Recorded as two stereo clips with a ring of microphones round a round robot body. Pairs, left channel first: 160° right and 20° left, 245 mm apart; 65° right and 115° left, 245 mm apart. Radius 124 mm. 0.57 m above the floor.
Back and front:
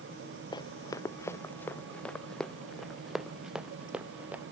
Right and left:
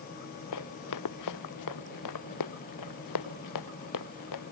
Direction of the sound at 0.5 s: 85° right.